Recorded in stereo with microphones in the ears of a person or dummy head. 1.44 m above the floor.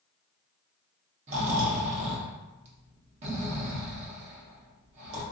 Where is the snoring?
35° right (ahead or behind), 0.8 m.